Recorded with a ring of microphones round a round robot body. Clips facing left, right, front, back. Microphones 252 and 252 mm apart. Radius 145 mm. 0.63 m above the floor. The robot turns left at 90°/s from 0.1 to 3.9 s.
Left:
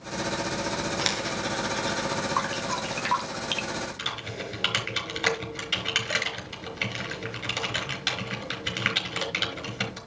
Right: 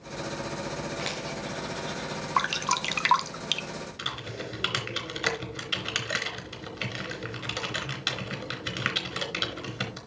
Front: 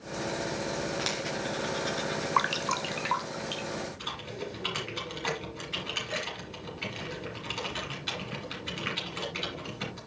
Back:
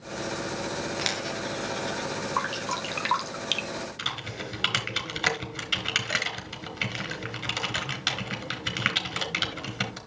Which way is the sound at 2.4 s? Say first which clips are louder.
Left 3 dB, even; 45° right.